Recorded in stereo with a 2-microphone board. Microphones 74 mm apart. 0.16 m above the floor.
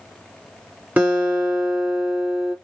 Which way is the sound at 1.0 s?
25° right (ahead or behind).